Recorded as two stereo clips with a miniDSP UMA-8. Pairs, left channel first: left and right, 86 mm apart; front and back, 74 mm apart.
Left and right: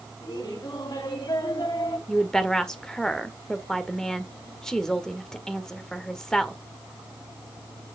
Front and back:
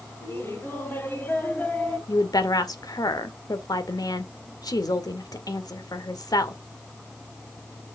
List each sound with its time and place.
0.2 s laughter: 55° left, 4.5 m; by 2.0 s 70° left, 3.5 m
2.1 s a woman speaking: 10° left, 1.7 m